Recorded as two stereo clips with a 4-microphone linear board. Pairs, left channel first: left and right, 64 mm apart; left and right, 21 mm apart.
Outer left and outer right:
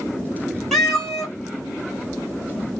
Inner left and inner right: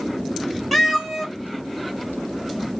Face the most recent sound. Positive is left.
turn(degrees=0)  # may be behind; listen again after turning